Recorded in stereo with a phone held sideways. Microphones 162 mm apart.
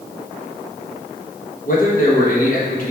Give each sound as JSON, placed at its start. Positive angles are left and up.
{"t": 1.6, "sound": "a man speaking", "side_deg": 55, "distance_m": 1.2}